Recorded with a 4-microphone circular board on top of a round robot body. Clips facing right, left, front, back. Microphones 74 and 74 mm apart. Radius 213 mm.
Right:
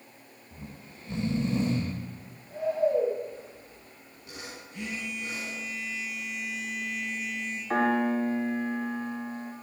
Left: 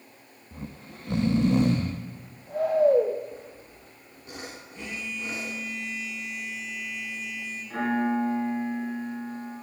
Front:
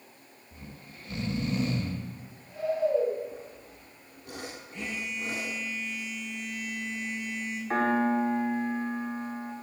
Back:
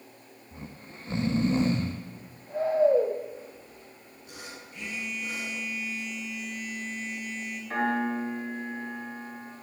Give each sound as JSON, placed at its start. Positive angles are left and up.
{"t": 0.5, "sound": "snoring", "azimuth_deg": 120, "distance_m": 1.0}
{"t": 3.3, "sound": "sawing", "azimuth_deg": 35, "distance_m": 0.7}
{"t": 4.7, "sound": "a phone buzzing", "azimuth_deg": -60, "distance_m": 6.0}
{"t": 7.7, "sound": "a piano", "azimuth_deg": -55, "distance_m": 4.5}